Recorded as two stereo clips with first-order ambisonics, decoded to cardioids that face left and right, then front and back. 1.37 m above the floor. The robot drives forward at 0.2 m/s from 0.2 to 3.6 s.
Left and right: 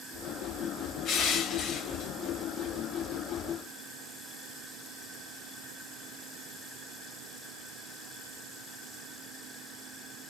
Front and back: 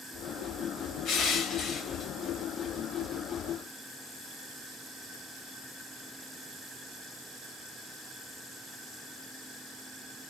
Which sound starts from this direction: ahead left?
Crushing, at 1.1 s.